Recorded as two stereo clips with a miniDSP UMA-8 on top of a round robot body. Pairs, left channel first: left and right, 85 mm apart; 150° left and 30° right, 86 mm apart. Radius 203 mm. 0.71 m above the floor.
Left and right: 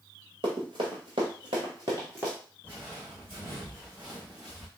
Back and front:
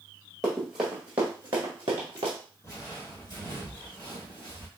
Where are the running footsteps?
125° right, 1.3 m; by 2.4 s 15° right, 0.8 m.